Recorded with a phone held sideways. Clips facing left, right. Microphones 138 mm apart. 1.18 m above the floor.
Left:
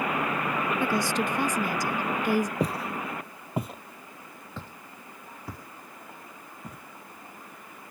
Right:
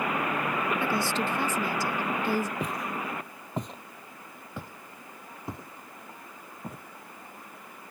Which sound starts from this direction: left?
Footsteps, at 2.6 s.